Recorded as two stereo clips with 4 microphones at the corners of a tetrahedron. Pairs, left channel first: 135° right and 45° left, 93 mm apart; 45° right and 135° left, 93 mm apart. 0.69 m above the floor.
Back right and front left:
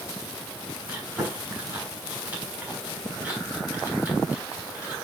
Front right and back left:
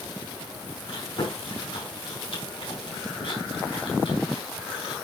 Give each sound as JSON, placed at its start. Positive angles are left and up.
{"t": 0.9, "sound": "chewing", "azimuth_deg": -30, "distance_m": 5.0}